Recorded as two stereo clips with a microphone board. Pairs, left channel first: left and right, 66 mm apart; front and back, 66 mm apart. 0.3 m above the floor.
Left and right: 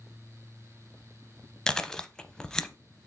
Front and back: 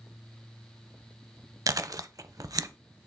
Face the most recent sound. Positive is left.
turn(degrees=170)